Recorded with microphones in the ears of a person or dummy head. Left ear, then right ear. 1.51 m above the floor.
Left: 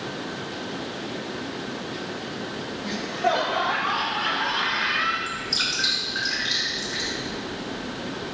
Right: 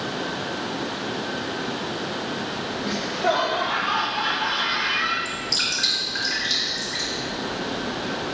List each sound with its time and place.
2.8 s laughter: 5° left (ahead or behind), 0.8 m
5.2 s dripping: 50° right (ahead or behind), 3 m